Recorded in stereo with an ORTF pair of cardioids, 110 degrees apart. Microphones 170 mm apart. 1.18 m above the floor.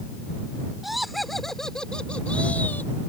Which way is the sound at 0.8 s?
Straight ahead.